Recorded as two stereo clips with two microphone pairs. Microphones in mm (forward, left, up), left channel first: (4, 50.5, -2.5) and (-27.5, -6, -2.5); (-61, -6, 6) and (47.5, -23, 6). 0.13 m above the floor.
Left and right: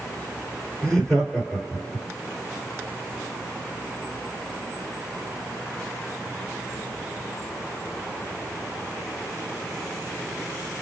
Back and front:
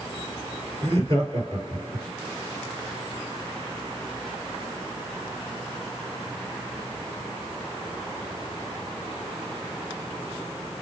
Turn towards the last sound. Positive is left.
turn(degrees=-10)